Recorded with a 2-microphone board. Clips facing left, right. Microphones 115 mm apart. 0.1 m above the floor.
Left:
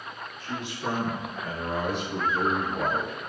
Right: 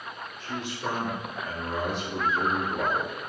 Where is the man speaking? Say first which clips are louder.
Even; 10° left (ahead or behind), 1.3 m; by 3.2 s 55° left (ahead or behind), 2 m.